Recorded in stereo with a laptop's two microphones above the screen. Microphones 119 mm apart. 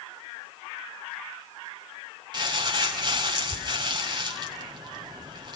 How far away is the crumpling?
About 4.5 m.